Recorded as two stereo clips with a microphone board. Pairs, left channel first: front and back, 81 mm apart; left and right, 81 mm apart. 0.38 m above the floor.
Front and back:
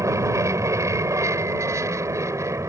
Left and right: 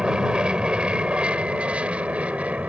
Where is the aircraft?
165° right; by 2.7 s 155° right.